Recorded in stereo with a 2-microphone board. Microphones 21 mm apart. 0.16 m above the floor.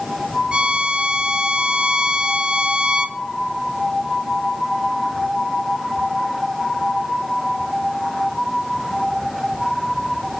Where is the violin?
60° right (ahead or behind), 1.1 m.